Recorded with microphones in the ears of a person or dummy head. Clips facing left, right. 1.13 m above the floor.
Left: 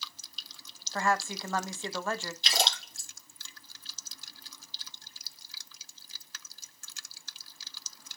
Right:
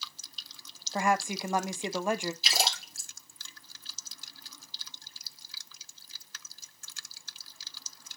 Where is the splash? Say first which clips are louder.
Left 1 dB; 5° right (ahead or behind), 2 m.